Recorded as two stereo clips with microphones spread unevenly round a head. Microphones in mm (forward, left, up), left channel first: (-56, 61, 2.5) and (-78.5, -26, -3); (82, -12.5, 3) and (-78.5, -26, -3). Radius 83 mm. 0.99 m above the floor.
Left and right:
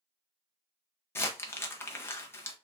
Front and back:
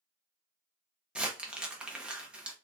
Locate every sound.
1.1 s crumpling: 110° left, 0.6 m